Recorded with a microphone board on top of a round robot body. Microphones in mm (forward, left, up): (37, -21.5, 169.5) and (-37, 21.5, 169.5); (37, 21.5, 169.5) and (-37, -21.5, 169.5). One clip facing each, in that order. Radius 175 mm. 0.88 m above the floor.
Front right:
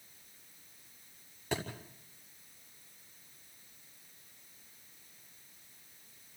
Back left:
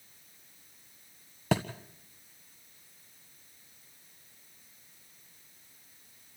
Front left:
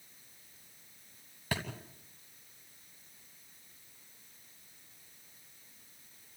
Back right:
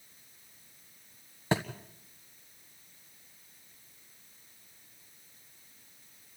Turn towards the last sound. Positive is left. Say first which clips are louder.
# back left 7 dB, back right 7 dB
turn(degrees=145)